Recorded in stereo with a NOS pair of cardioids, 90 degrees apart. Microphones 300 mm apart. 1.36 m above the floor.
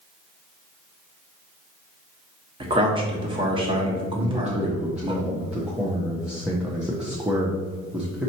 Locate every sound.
2.6 s a man speaking: 15° right, 1.3 m
4.1 s a man speaking: 5° right, 0.8 m